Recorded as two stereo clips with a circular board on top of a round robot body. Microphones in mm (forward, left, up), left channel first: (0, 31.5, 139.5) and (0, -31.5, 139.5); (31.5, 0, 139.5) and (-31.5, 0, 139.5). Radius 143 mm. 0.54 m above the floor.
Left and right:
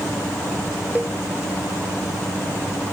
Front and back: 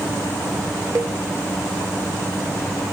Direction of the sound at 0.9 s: 155° right.